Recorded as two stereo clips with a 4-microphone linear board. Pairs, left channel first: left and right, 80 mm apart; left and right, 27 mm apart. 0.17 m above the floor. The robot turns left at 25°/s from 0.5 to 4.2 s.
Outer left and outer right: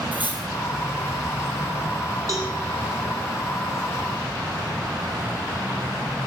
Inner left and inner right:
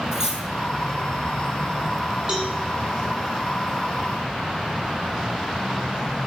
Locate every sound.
0.1 s cutlery clinking: 20° right (ahead or behind), 2.5 m
2.3 s a cowbell: 35° right (ahead or behind), 4.5 m; by 2.5 s 45° right (ahead or behind), 4.5 m